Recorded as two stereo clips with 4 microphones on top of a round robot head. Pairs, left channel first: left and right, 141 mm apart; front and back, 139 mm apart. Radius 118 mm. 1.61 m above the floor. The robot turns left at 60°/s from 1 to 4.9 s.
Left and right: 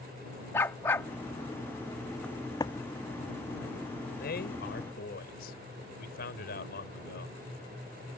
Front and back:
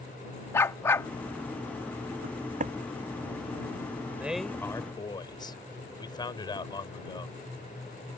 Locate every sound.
0.5 s a dog barking: 35° left; by 1.1 s 30° left
2.2 s footsteps: 175° left; by 2.8 s 140° left
4.1 s a man speaking: 105° left; by 7.4 s 55° left